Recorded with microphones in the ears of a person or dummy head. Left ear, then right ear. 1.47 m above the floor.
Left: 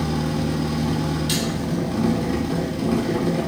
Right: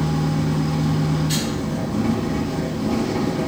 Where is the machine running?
55° left (ahead or behind), 0.9 m.